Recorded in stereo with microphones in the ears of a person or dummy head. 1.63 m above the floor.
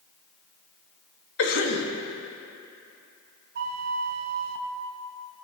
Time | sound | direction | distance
1.4 | a cough | 70° left (ahead or behind) | 2.5 m
3.5 | a flute | 55° right (ahead or behind) | 1.2 m